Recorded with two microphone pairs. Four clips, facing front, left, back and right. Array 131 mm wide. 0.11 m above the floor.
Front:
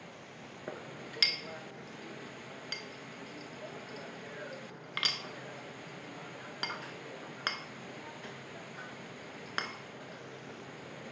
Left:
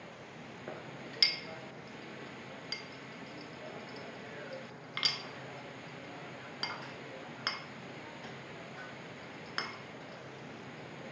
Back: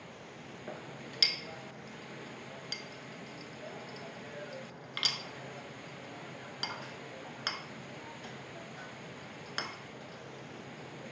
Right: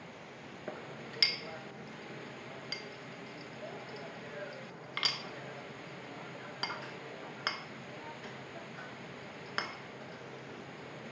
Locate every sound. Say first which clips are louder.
0.7 s a clink: right 2 dB, front 2 dB; 15° right, 0.7 m